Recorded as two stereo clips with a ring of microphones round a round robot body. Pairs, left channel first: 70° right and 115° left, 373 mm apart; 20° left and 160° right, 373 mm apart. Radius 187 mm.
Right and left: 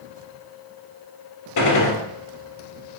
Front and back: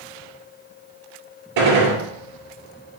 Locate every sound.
1.6 s a gunshot: 115° right, 2.5 m